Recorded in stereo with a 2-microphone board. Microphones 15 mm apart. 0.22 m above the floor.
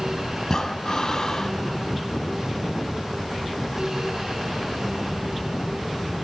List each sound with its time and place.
0.4 s breathing: 35° left (ahead or behind), 1.1 m